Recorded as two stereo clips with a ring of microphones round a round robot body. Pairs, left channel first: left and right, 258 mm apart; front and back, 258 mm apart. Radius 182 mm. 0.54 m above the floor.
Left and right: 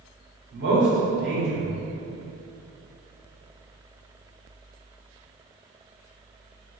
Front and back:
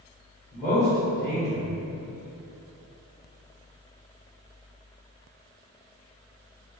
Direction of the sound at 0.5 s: 80° right.